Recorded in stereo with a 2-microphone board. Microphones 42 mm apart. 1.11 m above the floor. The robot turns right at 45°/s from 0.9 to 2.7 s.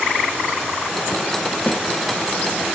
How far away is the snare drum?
About 2 m.